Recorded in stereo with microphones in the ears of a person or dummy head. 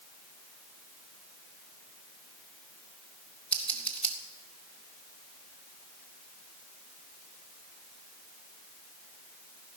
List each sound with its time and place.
3.5 s scissors: 10° left (ahead or behind), 1.1 m